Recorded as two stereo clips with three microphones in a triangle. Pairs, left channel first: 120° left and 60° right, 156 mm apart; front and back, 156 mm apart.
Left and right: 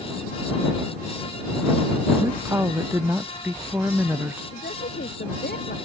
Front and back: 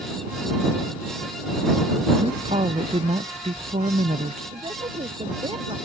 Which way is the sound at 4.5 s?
125° left.